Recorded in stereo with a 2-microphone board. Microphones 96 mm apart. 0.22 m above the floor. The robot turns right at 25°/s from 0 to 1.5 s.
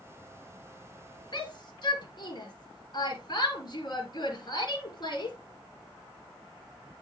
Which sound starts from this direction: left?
A shout, at 1.3 s.